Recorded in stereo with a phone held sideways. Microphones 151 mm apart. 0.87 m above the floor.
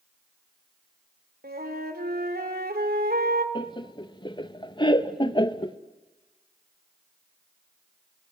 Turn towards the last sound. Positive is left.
turn(degrees=30)  # may be behind; listen again after turning